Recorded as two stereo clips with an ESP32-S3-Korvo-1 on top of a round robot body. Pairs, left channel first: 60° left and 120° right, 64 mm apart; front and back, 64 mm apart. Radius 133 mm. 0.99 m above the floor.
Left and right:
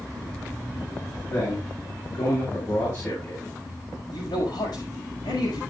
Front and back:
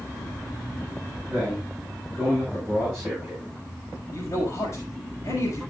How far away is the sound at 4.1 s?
About 5.5 m.